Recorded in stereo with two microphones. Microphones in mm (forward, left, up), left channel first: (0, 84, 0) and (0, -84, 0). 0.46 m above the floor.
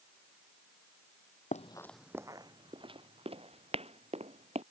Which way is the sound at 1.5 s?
50° left (ahead or behind).